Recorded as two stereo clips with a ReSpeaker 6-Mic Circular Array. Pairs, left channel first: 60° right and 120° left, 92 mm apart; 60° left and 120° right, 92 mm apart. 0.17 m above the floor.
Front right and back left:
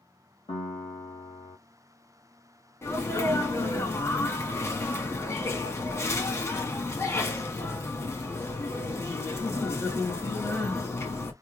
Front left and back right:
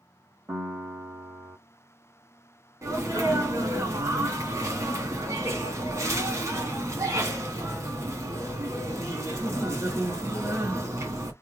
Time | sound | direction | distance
0.5 | a piano | 55° right | 2.5 m
2.8 | a sneeze | 95° right | 1.5 m